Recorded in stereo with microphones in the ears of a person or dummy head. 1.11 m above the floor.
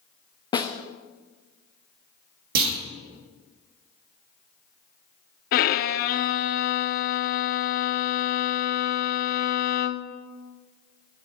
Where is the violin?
45° left (ahead or behind), 0.5 m.